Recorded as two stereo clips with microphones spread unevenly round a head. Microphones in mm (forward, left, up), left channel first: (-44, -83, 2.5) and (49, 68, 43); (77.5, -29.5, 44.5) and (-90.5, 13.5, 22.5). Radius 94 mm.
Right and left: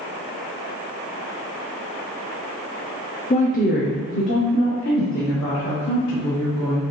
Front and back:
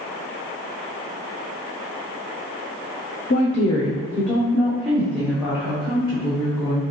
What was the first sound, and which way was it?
A woman speaking, 60° right.